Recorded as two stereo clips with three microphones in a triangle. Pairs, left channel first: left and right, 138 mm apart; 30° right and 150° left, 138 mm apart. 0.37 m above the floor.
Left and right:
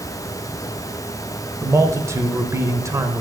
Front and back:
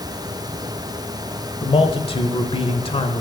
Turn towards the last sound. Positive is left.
turn(degrees=-30)